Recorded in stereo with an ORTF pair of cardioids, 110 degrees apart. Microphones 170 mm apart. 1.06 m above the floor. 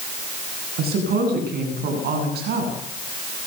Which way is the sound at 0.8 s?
70° right.